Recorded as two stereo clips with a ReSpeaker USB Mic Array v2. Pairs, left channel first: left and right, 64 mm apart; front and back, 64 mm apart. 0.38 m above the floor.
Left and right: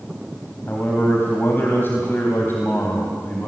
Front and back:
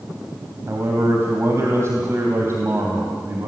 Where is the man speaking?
140° left, 3 m.